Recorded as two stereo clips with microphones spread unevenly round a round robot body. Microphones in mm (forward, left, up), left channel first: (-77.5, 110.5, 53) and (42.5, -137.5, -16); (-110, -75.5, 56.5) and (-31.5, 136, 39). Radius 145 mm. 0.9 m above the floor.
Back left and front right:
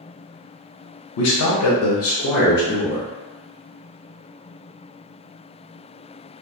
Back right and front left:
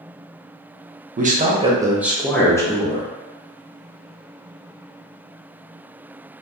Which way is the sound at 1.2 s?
95° left.